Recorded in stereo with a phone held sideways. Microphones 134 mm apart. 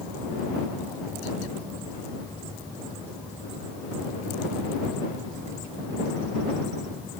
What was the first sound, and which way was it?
Only background noise.